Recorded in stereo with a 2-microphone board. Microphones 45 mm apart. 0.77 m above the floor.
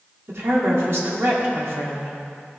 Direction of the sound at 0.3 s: 60° right (ahead or behind).